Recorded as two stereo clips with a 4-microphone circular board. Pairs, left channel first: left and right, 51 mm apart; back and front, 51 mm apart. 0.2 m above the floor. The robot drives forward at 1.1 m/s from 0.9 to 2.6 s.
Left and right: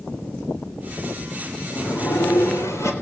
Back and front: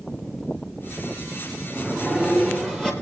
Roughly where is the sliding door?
Left.